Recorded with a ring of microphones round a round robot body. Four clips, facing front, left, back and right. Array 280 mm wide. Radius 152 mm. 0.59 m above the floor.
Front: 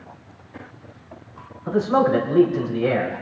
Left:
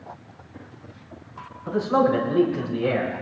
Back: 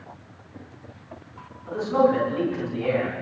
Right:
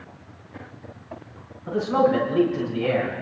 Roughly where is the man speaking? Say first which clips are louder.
Even, front 2 dB; ahead.